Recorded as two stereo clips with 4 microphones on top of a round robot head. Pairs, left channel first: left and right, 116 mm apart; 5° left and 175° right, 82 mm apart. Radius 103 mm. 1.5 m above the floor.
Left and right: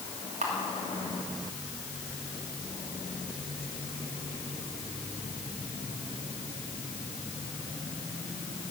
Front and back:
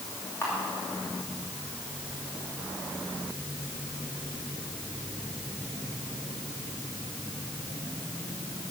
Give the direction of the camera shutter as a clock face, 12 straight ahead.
2 o'clock.